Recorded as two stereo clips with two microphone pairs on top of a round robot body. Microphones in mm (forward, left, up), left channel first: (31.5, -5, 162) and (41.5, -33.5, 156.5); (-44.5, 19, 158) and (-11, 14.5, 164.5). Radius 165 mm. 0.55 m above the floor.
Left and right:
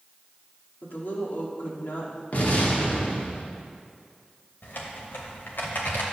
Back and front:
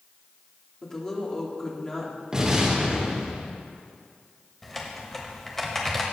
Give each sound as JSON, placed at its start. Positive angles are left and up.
{"t": 0.8, "sound": "a woman speaking", "azimuth_deg": 115, "distance_m": 2.0}
{"t": 2.3, "sound": "an explosion", "azimuth_deg": 65, "distance_m": 1.9}
{"t": 4.6, "sound": "typing on a keyboard", "azimuth_deg": 90, "distance_m": 0.7}